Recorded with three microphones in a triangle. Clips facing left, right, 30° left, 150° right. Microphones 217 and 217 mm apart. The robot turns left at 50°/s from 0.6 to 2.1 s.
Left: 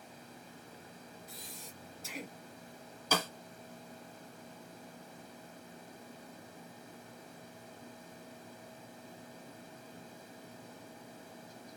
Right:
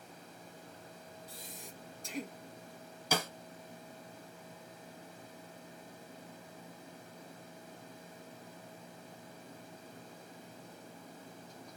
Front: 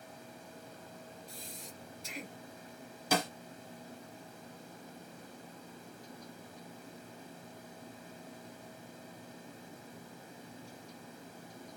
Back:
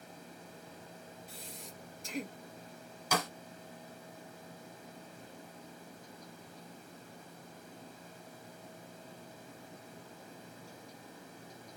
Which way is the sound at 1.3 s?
145° right.